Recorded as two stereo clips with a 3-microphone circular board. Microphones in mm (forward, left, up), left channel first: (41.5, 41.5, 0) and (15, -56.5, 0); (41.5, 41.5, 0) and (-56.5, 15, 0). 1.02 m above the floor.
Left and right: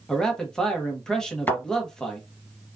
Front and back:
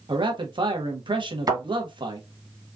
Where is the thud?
145° left, 2 m.